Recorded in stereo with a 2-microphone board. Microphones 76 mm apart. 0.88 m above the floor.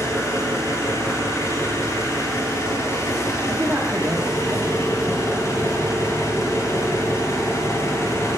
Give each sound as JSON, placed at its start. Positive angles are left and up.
{"t": 0.0, "sound": "an engine running", "side_deg": 45, "distance_m": 1.7}
{"t": 3.5, "sound": "a man speaking", "side_deg": -20, "distance_m": 1.4}